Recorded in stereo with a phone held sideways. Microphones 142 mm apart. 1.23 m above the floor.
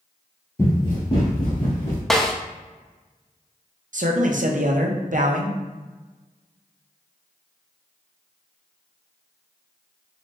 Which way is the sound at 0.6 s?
20° left (ahead or behind).